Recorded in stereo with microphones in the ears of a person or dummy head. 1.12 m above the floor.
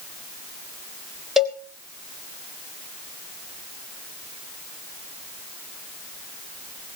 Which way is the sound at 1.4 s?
5° right (ahead or behind).